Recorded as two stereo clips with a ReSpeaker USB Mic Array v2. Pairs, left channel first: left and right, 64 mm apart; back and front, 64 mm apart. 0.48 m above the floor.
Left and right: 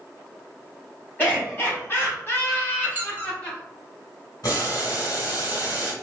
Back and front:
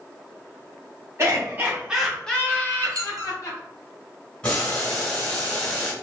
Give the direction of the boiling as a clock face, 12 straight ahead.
8 o'clock.